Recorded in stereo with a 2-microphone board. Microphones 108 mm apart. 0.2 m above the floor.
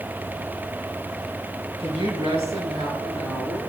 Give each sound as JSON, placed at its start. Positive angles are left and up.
{"t": 1.8, "sound": "a woman speaking", "side_deg": -65, "distance_m": 3.5}